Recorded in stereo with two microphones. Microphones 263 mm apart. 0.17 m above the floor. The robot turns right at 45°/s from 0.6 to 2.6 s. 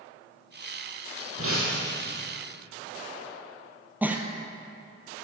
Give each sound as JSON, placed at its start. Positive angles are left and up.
{"t": 1.4, "sound": "breaking glass", "azimuth_deg": -125, "distance_m": 4.0}
{"t": 4.0, "sound": "a giggle", "side_deg": -5, "distance_m": 1.3}